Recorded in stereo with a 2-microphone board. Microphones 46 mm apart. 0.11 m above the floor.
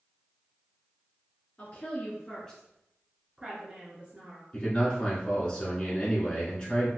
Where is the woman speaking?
35° left (ahead or behind), 1.3 m; by 4.4 s 40° right (ahead or behind), 1.3 m.